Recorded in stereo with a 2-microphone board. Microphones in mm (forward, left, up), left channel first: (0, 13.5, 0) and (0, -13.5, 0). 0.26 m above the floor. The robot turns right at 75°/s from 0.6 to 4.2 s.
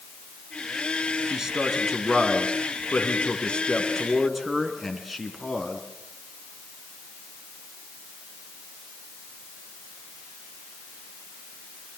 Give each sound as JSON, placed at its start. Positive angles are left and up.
{"t": 1.3, "sound": "a man speaking", "azimuth_deg": -30, "distance_m": 3.0}